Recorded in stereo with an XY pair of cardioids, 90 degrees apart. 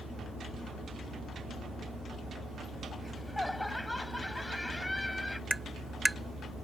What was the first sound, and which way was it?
Laughter, 15° left.